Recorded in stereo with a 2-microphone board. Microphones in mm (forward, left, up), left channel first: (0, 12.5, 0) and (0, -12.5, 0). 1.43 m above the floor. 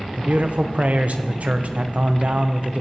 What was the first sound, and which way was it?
A man speaking, 65° right (ahead or behind).